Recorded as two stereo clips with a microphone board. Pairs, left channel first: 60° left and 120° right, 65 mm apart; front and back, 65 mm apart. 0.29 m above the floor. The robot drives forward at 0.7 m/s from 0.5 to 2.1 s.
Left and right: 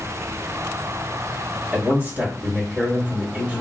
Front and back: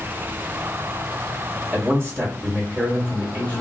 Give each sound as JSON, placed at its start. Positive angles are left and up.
{"t": 1.7, "sound": "a man speaking", "azimuth_deg": -165, "distance_m": 1.8}